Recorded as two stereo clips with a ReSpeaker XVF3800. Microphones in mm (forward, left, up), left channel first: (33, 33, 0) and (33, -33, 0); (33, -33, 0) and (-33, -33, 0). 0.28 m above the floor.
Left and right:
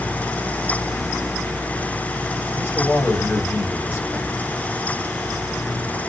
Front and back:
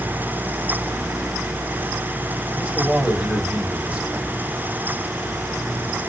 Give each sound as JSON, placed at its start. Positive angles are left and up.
{"t": 2.5, "sound": "a man speaking", "azimuth_deg": 110, "distance_m": 1.4}